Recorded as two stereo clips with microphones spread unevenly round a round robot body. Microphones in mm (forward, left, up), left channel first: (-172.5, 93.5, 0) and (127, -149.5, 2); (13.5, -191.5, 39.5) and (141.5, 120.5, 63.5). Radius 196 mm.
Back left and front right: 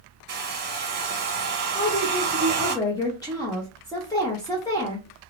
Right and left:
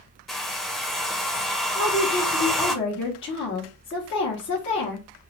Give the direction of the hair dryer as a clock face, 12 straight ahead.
1 o'clock.